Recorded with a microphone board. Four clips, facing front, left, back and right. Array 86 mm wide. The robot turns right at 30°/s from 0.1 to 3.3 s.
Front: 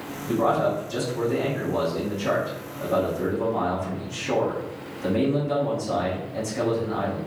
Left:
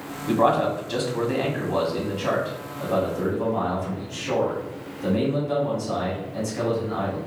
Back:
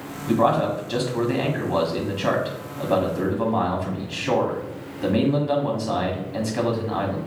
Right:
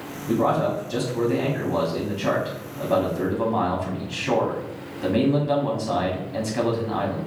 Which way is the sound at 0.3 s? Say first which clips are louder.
Left 1 dB, back 2 dB; 125° left.